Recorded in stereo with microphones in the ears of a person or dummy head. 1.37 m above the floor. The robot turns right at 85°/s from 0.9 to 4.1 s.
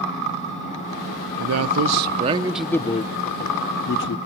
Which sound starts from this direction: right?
A man speaking, at 1.4 s.